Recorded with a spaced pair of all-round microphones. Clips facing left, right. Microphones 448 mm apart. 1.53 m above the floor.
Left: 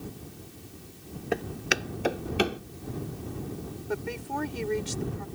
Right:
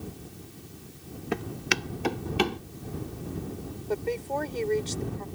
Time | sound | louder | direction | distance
1.3 | footsteps | left 1 dB | 20° right (ahead or behind) | ?
3.9 | a woman speaking | right 4 dB | 30° left (ahead or behind) | ?